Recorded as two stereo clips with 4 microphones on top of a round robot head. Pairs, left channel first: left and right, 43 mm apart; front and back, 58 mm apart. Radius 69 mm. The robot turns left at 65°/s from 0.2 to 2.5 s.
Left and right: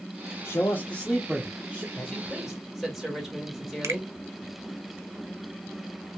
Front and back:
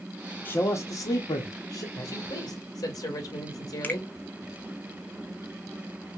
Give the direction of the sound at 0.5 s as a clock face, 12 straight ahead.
10 o'clock.